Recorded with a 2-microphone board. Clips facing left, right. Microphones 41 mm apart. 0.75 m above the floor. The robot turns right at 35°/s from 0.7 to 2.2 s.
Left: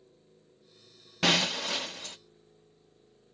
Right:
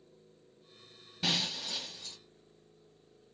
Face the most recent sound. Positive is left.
turn(degrees=120)